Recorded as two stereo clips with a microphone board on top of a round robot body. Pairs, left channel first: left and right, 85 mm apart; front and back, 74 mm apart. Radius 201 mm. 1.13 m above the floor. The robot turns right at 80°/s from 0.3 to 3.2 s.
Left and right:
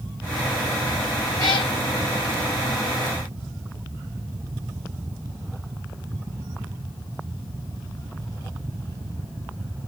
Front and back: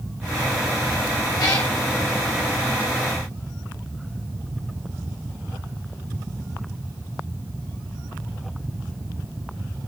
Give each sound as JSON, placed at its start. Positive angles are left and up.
{"t": 1.4, "sound": "a cat meowing", "azimuth_deg": 40, "distance_m": 0.6}